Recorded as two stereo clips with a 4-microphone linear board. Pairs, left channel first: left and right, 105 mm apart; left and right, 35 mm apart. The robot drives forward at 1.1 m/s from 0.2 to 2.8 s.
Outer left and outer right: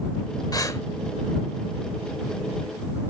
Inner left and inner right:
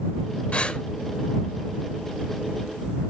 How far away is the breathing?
About 0.7 m.